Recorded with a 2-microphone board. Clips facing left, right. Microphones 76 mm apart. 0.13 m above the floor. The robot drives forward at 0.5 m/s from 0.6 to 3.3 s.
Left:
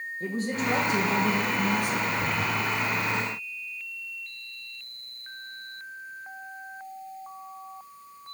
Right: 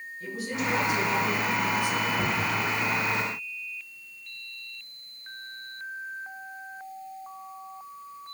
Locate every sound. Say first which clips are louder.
0.2 s a woman speaking: left 2 dB; 40° left (ahead or behind), 5 m; by 2.1 s 45° left (ahead or behind), 4.5 m
2.2 s knocking: even; 45° right (ahead or behind), 5.5 m